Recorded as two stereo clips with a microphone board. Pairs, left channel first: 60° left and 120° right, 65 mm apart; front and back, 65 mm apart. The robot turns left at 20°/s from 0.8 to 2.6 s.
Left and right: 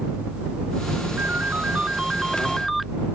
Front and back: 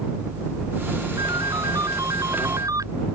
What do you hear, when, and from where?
1.2 s a ringtone: straight behind; by 2.9 s 150° left